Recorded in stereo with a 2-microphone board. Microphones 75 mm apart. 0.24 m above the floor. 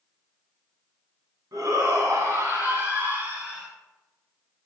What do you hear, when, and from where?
1.5 s a shout: 55° right (ahead or behind), 2.0 m; by 3.7 s 10° right (ahead or behind), 2.5 m